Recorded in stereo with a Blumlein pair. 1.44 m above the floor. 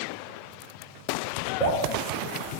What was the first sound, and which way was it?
Dripping, 5° left.